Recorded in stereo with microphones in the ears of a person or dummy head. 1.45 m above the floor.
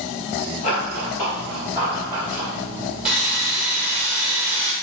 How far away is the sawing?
About 1.4 m.